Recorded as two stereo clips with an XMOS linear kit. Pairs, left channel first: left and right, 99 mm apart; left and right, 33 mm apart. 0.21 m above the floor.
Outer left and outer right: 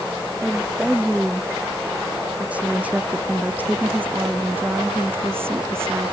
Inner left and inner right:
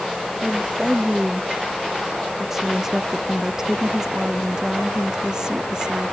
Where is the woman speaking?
10° right (ahead or behind); by 6.1 s 25° right (ahead or behind).